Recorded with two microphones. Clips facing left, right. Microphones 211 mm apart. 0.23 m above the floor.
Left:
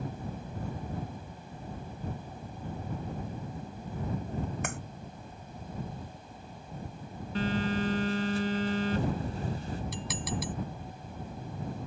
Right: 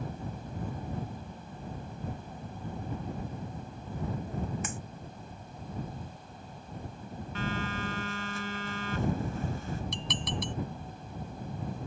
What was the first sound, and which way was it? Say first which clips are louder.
A clap: left 2 dB; 60° left (ahead or behind).